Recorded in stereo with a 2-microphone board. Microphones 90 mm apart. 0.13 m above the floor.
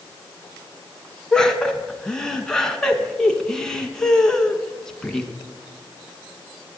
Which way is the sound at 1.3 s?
5° left (ahead or behind).